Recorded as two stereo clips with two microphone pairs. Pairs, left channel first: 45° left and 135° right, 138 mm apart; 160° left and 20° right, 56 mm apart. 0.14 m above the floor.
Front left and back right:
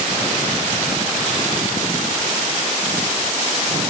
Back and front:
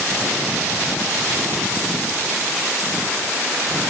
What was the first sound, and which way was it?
Only background noise.